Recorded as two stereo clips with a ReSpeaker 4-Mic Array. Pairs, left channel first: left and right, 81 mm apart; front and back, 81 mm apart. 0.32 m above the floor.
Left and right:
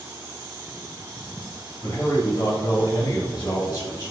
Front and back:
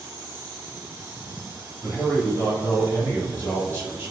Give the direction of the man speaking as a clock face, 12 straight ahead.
10 o'clock.